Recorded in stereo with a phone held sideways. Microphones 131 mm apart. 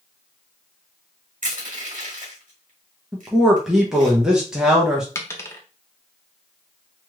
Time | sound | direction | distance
1.4 | crushing | 80° right | 1.6 m
3.1 | a man speaking | 5° right (ahead or behind) | 0.7 m
5.2 | a dropped coin | 20° left (ahead or behind) | 0.6 m